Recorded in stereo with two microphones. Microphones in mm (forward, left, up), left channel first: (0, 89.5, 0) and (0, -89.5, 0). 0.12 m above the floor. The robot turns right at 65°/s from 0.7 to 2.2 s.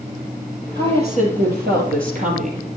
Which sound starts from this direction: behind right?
A woman speaking, at 0.8 s.